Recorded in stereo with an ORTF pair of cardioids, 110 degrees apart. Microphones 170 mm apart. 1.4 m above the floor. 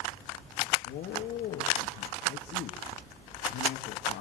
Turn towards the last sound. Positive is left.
turn(degrees=65)